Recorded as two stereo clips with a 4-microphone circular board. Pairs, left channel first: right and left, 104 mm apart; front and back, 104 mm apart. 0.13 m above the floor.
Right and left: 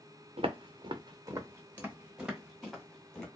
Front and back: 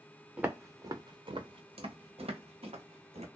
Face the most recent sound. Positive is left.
turn(degrees=-175)